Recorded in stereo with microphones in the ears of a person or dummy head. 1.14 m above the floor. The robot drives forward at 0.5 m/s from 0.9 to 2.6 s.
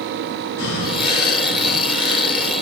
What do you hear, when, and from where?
0.6 s breathing: 50° left (ahead or behind), 0.9 m; by 2.5 s 45° left (ahead or behind), 1.0 m